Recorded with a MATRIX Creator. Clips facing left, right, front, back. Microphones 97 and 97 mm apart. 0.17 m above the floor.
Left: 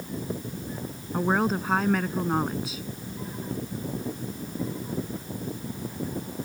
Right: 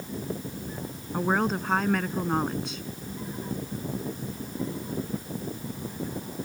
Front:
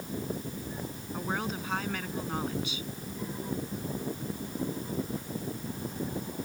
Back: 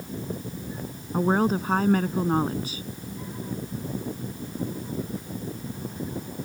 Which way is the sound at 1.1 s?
175° left.